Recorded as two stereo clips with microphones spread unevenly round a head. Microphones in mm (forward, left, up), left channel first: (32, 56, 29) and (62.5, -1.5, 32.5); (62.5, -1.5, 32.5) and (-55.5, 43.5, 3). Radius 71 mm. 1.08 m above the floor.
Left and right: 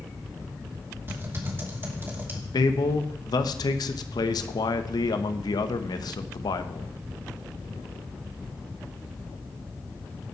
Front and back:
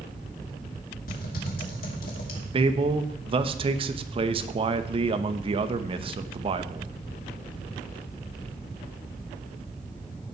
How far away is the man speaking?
About 1.1 m.